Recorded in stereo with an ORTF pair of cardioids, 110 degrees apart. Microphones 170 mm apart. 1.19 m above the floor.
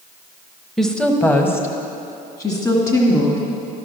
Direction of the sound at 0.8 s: Straight ahead.